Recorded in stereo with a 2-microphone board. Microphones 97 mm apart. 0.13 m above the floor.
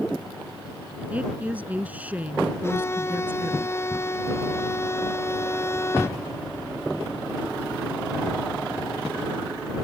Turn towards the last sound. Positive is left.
turn(degrees=25)  # may be behind; listen again after turning